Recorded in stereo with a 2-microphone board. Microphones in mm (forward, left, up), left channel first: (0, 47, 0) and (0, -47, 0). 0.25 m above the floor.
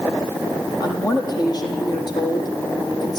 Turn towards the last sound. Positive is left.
turn(degrees=45)  # may be behind; listen again after turning